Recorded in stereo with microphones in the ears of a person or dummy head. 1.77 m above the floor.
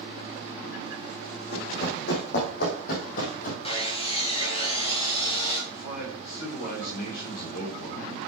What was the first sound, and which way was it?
Running footsteps, 60° left (ahead or behind).